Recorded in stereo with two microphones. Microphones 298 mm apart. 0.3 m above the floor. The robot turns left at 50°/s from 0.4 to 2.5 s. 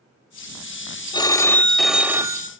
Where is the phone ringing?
15° left (ahead or behind), 0.5 m; by 2.5 s 15° right (ahead or behind), 0.5 m.